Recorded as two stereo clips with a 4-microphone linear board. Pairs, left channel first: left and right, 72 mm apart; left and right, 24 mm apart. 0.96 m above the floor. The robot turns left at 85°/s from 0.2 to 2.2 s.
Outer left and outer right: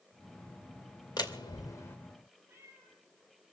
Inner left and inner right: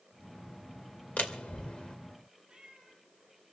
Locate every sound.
1.2 s a door slam: 80° left, 2.5 m; by 2.0 s 30° left (ahead or behind), 2.5 m
2.5 s a cat meowing: 35° right (ahead or behind), 7.5 m